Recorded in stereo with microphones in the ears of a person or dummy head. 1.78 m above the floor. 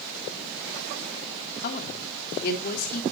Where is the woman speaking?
55° left (ahead or behind), 3 m.